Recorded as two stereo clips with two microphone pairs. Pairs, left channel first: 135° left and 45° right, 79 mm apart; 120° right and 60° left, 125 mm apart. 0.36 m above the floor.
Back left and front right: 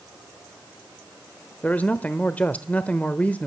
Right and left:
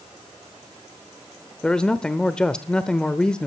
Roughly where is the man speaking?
Behind.